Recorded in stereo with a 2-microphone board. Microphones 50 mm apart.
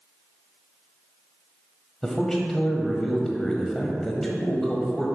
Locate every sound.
2.0 s a man speaking: 10° left (ahead or behind), 1.0 m